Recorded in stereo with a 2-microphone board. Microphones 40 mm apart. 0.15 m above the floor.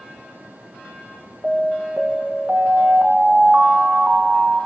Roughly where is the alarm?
Right.